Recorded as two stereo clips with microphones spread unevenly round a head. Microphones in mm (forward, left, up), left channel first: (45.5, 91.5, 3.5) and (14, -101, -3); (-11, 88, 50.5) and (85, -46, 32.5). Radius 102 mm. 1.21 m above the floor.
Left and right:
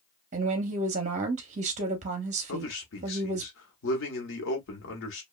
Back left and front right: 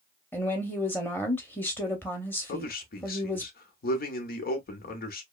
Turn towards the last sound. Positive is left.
turn(degrees=95)